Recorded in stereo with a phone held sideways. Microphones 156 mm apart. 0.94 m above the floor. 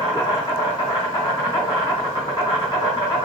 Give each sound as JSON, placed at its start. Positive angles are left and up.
{"t": 0.0, "sound": "an insect", "side_deg": 30, "distance_m": 1.3}